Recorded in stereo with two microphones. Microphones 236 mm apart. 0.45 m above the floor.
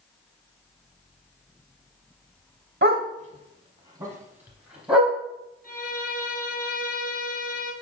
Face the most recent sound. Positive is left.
turn(degrees=40)  # may be behind; listen again after turning